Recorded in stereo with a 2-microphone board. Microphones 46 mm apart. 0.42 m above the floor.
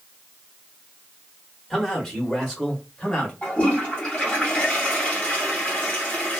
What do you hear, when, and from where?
1.7 s a man speaking: centre (ahead or behind), 1.5 m; by 3.3 s 25° left (ahead or behind), 1.9 m
3.4 s a toilet flushing: 25° left (ahead or behind), 1.9 m